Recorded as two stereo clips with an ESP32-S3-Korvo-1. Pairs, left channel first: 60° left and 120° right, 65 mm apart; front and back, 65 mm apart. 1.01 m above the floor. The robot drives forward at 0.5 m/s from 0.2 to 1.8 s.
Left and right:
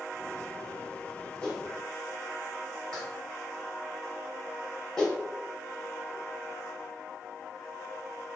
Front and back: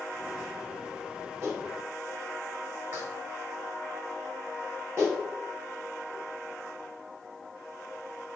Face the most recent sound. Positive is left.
turn(degrees=140)